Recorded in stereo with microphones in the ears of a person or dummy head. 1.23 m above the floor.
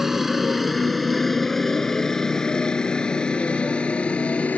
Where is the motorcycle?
5° right (ahead or behind); by 4.6 s 5° left (ahead or behind).